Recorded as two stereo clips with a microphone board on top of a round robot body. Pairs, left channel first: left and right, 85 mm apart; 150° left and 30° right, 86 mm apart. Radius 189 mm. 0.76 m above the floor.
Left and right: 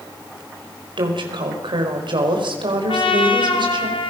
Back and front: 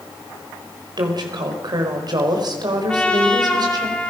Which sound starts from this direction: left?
A trumpet, at 2.9 s.